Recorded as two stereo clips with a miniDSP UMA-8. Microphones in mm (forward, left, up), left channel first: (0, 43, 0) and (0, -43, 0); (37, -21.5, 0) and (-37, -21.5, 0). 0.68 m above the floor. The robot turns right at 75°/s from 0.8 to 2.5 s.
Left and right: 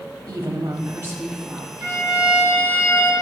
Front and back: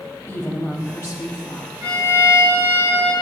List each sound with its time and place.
0.3 s a woman speaking: 55° right, 0.7 m; by 1.7 s 10° left, 0.7 m
1.8 s a violin: 150° right, 3 m; by 3.1 s 95° right, 3 m